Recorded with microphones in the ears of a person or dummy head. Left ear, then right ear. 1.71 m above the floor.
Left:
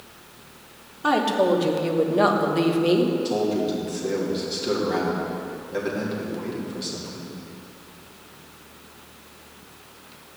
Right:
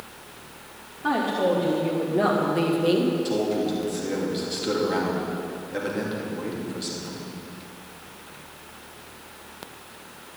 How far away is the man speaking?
About 3 m.